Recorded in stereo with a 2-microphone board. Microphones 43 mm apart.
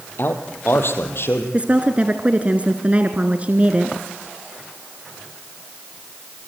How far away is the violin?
I don't hear a violin.